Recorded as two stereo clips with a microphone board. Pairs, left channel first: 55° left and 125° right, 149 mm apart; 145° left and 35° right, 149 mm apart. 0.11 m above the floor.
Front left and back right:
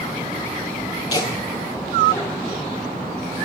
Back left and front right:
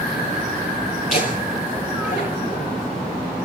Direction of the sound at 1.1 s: 120° left.